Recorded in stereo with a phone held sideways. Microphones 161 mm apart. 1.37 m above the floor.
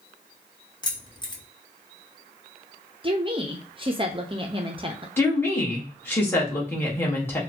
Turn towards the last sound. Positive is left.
turn(degrees=15)  # may be behind; listen again after turning